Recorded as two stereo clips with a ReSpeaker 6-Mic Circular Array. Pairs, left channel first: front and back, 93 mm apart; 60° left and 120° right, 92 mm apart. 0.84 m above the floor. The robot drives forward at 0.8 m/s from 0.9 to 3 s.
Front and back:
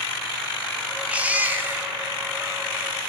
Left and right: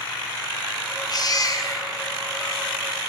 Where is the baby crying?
105° left, 3 m; by 2.6 s 120° left, 3.5 m.